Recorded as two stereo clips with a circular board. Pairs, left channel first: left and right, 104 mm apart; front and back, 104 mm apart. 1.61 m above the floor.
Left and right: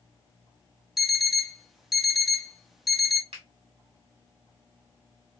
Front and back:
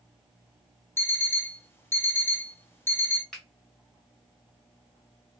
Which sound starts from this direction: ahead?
An alarm clock, at 1.0 s.